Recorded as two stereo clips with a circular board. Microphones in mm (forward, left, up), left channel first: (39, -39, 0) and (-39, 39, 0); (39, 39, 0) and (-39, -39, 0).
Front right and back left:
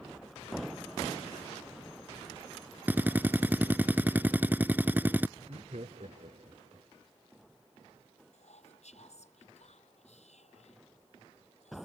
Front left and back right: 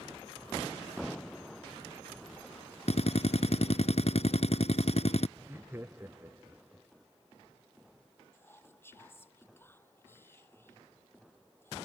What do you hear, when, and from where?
2.9 s a drill: 60° left
5.4 s laughter: 155° left
8.3 s whispering: 25° right